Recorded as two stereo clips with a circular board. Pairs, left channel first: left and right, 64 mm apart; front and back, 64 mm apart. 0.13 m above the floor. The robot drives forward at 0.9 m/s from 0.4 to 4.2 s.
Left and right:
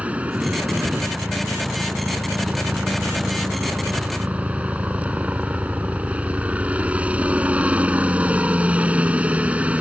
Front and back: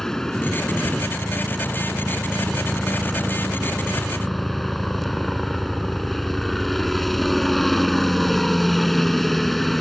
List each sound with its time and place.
0.0 s a helicopter: 70° right; by 9.8 s 85° right